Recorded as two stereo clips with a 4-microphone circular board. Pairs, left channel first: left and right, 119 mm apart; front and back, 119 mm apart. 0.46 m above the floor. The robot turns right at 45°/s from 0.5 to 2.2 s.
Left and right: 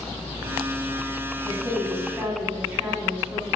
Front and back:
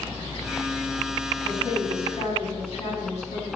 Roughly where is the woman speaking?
Ahead right.